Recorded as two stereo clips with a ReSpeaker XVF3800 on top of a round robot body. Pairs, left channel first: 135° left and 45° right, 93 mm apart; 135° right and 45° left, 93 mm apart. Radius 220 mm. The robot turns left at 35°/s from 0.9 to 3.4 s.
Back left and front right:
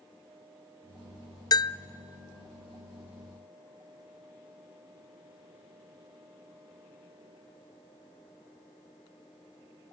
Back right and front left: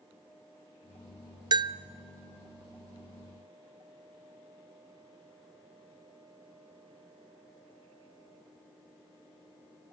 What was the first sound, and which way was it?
A bell, 85° left.